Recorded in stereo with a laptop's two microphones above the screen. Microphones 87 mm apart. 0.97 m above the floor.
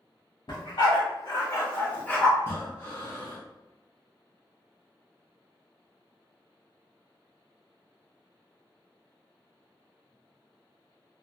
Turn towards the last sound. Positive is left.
turn(degrees=30)  # may be behind; listen again after turning